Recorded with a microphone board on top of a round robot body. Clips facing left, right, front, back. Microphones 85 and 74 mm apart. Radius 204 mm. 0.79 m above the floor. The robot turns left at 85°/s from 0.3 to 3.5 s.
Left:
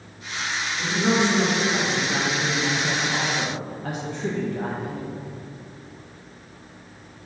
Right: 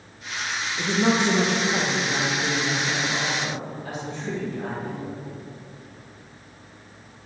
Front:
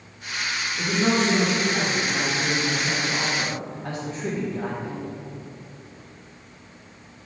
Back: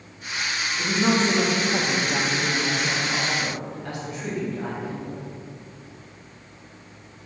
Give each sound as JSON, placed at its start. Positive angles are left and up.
{"t": 0.8, "sound": "a woman speaking", "azimuth_deg": -65, "distance_m": 1.3}